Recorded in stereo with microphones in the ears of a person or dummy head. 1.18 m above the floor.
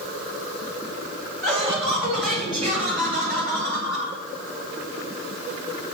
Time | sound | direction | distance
1.4 | laughter | centre (ahead or behind) | 1.8 m